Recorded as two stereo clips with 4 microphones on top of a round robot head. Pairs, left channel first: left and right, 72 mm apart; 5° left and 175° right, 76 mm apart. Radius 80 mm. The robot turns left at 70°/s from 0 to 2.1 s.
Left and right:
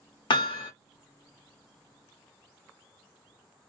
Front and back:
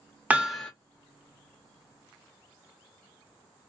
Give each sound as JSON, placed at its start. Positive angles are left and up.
{"t": 0.3, "sound": "hammering", "azimuth_deg": 115, "distance_m": 0.8}